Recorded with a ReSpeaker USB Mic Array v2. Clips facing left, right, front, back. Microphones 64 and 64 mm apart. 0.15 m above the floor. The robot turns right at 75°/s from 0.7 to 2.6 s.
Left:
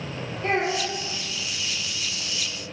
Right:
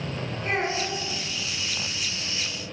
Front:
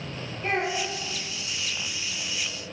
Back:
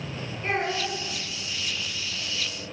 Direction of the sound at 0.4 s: 90° left.